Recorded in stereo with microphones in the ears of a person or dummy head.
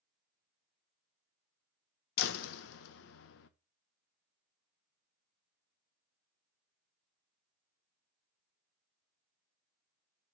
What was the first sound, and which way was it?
A door slam, 65° left (ahead or behind).